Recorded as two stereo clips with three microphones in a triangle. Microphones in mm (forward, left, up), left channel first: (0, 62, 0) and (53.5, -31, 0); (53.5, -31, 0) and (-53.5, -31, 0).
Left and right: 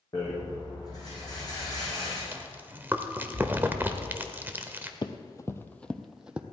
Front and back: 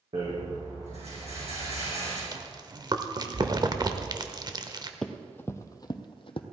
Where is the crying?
I don't hear crying.